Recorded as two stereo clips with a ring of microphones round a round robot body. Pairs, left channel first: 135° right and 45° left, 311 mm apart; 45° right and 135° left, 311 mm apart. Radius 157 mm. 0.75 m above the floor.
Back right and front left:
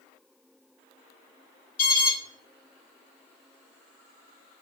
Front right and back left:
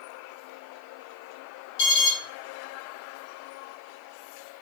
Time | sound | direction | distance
1.8 | an alarm | 100° right | 4 m